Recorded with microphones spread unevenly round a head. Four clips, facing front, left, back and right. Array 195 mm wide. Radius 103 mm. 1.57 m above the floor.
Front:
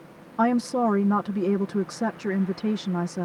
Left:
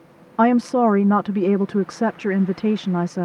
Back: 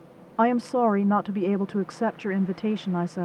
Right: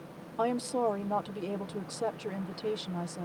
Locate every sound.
0.4 s a woman speaking: 75° left